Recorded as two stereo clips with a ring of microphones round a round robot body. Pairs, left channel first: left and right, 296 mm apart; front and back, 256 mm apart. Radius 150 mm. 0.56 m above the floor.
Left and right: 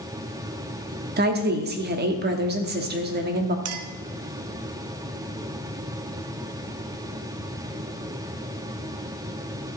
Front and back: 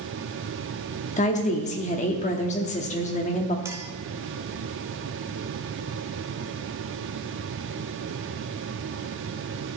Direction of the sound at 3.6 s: 105° right.